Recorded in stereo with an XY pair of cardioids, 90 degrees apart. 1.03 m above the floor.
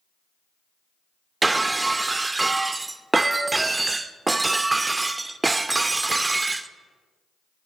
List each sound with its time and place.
1.4 s breaking glass: 25° right, 0.6 m